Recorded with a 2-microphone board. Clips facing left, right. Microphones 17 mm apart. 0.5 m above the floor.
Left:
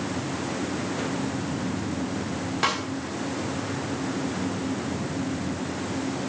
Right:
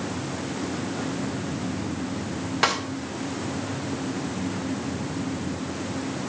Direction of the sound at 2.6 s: 15° right (ahead or behind).